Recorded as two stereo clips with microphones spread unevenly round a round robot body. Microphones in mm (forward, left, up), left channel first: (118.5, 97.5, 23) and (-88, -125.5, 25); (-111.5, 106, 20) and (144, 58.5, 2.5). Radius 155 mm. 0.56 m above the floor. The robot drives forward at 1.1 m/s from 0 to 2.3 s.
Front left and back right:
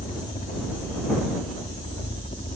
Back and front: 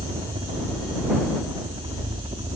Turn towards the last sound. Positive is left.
turn(degrees=20)